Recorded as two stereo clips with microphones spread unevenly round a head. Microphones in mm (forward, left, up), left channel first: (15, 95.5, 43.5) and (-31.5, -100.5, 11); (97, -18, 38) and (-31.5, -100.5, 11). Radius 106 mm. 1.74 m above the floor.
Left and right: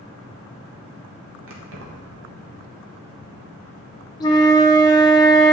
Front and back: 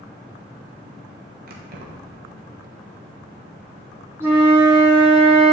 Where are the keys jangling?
130° right, 1.1 m.